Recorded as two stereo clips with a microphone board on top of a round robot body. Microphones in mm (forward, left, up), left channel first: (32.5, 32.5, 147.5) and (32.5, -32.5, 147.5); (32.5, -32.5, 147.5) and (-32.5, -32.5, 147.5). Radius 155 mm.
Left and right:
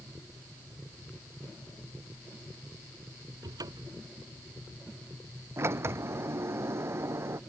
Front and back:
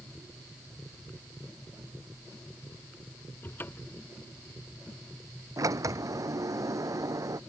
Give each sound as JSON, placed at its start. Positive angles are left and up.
{"t": 3.4, "sound": "a cupboard door", "azimuth_deg": -60}
{"t": 5.6, "sound": "a sliding door", "azimuth_deg": -145}